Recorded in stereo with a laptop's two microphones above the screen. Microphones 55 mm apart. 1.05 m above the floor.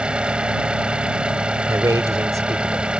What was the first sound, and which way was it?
An engine running, 20° right (ahead or behind).